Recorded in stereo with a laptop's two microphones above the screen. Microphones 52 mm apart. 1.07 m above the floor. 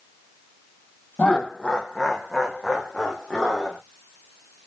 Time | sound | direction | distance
1.2 | laughter | 25° left (ahead or behind) | 0.5 m